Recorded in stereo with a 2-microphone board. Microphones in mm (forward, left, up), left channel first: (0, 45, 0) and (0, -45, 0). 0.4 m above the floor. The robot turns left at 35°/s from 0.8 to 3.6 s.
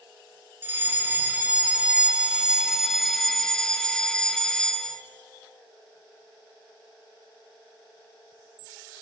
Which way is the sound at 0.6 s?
20° right (ahead or behind).